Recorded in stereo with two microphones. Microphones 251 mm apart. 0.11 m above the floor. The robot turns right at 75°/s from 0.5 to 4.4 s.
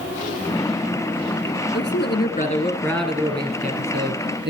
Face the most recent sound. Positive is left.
turn(degrees=-75)